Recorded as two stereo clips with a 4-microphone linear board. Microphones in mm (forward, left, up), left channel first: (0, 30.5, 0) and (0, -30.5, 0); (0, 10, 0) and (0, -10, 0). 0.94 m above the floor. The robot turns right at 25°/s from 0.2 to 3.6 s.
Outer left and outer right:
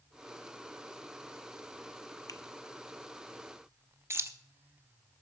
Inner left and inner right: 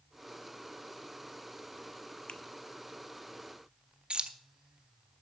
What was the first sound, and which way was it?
A finger snap, 70° left (ahead or behind).